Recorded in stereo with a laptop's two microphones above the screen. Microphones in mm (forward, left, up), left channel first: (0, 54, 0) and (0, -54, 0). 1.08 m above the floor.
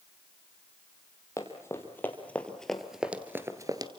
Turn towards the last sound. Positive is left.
turn(degrees=-40)  # may be behind; listen again after turning